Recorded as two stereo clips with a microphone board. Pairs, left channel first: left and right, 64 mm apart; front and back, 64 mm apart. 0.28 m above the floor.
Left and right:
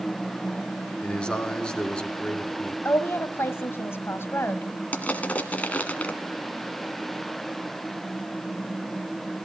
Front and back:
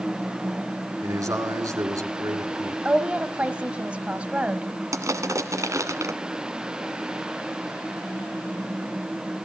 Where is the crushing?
155° left, 1.5 m.